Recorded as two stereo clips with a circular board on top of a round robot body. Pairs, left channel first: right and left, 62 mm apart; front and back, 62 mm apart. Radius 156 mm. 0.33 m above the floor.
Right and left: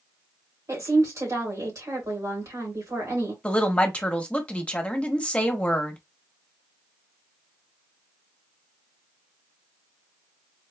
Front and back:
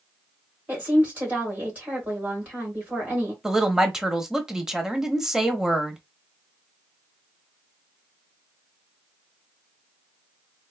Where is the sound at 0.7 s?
115° left, 3 m.